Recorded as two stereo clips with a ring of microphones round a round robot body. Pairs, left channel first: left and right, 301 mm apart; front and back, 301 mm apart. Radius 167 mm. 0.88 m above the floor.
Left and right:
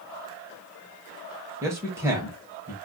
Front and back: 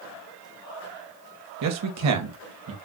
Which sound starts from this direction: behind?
A man speaking, at 1.6 s.